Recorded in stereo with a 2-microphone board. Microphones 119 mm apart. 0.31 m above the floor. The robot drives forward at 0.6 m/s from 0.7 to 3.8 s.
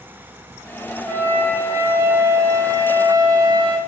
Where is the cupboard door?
I don't hear a cupboard door.